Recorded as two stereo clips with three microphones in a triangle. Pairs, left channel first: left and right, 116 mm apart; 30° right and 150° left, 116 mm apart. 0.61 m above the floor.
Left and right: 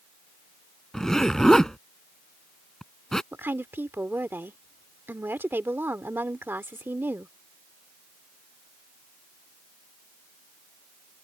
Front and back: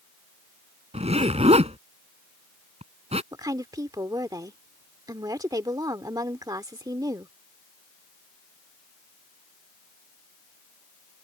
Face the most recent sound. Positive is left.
turn(degrees=-160)